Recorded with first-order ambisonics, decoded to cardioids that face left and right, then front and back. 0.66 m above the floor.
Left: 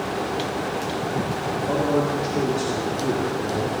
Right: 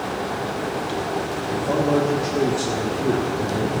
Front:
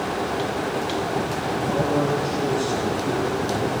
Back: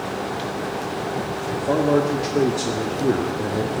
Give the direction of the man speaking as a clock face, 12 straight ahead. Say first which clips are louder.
Right 2 dB, back 5 dB; 6 o'clock.